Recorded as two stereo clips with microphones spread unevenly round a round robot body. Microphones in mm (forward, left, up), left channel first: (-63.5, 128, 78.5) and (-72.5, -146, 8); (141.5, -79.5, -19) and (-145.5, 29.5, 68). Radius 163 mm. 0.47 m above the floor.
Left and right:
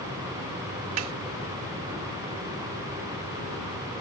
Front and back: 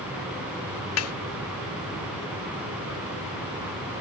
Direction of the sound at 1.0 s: 60° right.